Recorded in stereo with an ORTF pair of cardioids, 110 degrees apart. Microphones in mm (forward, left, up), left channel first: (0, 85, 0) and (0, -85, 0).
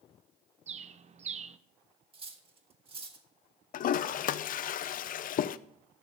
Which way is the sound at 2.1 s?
30° right.